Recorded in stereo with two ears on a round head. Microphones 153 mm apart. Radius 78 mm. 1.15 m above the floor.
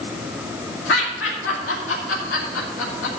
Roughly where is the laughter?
Left.